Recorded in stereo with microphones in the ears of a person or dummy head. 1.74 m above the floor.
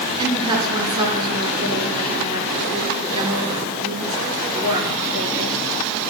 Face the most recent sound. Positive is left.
turn(degrees=-30)  # may be behind; listen again after turning